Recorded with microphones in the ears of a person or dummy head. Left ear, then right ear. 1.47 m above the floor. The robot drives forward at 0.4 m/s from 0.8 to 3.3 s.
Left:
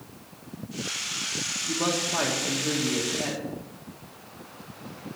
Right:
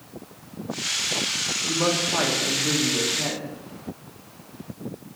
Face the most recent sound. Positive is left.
turn(degrees=0)  # may be behind; listen again after turning